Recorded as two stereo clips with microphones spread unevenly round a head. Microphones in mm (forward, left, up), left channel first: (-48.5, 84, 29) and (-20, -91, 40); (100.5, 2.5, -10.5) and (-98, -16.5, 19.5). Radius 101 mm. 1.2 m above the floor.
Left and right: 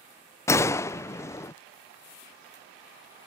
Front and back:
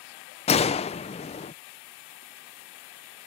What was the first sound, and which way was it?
A gunshot, 35° left.